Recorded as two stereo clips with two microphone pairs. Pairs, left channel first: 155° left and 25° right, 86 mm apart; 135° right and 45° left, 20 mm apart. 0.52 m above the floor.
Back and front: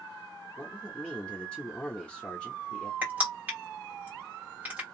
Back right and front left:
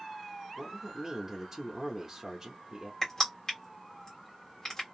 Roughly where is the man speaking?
Left.